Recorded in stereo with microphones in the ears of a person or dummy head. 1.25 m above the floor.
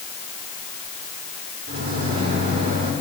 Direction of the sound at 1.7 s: 75° right (ahead or behind).